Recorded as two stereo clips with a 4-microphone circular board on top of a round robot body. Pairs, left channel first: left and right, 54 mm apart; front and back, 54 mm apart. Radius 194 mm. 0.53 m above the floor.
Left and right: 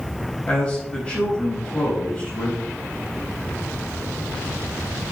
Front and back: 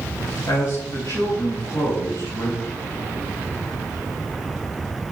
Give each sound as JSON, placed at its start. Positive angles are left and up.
{"t": 0.5, "sound": "a man speaking", "azimuth_deg": 25, "distance_m": 5.0}